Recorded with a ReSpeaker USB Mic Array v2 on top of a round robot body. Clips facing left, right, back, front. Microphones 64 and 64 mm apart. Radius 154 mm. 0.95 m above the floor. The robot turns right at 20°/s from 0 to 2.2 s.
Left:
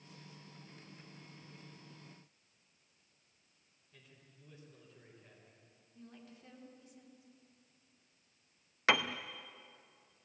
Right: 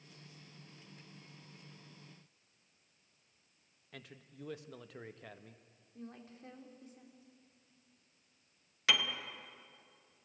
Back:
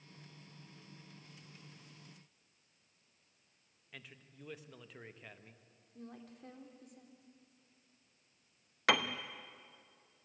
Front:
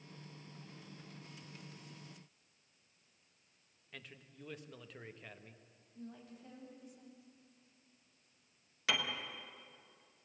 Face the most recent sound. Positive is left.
turn(degrees=145)